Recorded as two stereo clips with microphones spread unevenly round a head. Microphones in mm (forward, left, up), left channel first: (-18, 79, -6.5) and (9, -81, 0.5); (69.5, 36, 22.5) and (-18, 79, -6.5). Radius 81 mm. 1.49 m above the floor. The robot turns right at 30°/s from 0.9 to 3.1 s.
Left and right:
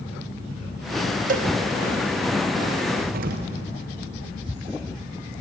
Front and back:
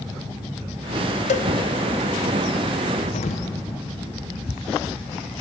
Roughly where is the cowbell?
Ahead right.